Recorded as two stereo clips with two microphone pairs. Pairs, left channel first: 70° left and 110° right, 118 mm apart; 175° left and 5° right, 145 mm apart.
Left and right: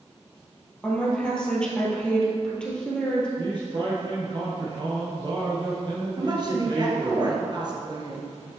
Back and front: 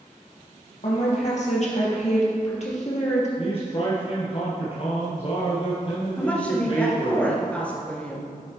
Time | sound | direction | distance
0.8 | a woman speaking | 155° left | 2.5 m
3.4 | a man speaking | 145° right | 2.5 m
6.2 | a woman speaking | 110° right | 2 m